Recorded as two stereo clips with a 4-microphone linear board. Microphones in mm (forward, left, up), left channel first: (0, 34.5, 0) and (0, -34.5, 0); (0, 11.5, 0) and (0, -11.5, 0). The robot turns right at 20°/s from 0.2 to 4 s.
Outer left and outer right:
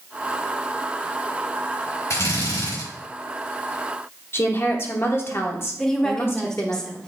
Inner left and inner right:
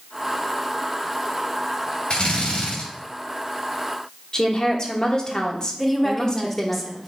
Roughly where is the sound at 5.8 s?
Centre.